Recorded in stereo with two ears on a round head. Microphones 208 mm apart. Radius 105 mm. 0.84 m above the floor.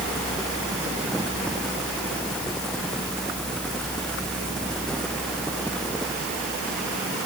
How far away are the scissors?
No scissors in this recording.